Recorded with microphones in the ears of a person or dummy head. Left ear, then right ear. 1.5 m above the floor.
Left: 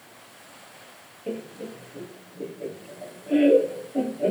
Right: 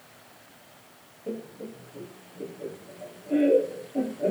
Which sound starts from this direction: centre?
Laughter, at 1.3 s.